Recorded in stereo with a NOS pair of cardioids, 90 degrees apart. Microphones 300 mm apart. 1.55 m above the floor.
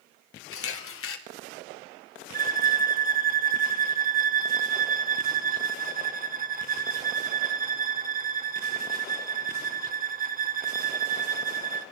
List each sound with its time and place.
0.5 s a camera shutter: 50° left, 1.9 m
2.3 s a violin: 30° right, 1.1 m